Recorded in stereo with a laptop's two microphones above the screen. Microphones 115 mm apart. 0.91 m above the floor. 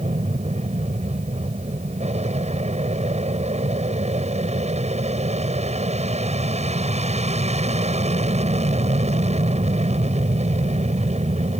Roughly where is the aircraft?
Right.